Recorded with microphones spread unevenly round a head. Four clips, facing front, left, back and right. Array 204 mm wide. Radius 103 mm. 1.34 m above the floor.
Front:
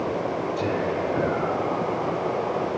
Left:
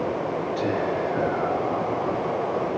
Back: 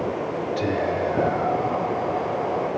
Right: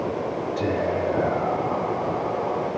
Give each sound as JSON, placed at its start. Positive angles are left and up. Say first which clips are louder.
{"t": 0.6, "sound": "whispering", "louder": "right 2 dB, back 3 dB", "azimuth_deg": -110, "distance_m": 5.0}